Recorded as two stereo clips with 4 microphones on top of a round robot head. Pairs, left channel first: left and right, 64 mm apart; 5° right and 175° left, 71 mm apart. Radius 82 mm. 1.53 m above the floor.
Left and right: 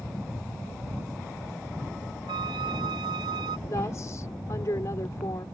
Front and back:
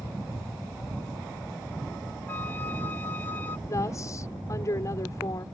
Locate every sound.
2.3 s a flute: 80° right
3.7 s a woman speaking: 40° left